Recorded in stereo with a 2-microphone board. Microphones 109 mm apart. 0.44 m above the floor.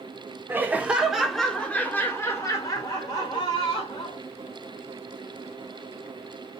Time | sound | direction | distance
0.5 | laughter | 20° right (ahead or behind) | 1.1 m